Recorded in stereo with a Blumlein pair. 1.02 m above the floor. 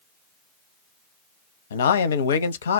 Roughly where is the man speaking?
Ahead left.